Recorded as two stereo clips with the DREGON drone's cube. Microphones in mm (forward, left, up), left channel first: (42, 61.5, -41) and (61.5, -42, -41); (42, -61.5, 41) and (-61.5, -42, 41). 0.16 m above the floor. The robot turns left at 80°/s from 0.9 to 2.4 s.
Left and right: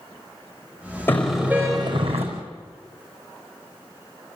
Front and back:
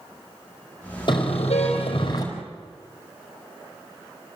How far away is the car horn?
About 4.5 m.